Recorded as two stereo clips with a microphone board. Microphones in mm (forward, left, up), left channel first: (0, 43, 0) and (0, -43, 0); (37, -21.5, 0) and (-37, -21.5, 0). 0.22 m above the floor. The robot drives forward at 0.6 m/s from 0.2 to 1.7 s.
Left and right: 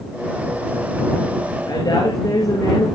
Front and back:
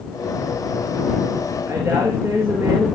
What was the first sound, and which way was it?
A woman speaking, 130° left.